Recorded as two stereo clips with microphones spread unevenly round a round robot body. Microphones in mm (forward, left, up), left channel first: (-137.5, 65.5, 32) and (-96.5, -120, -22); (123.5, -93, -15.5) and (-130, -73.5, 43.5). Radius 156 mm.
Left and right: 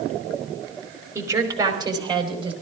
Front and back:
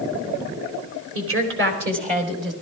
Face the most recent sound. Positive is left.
turn(degrees=-140)